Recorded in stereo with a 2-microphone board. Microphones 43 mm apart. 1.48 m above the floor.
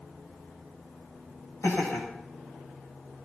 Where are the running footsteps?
I don't hear running footsteps.